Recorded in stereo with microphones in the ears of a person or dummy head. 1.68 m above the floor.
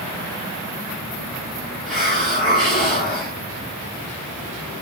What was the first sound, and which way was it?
A hiss, centre (ahead or behind).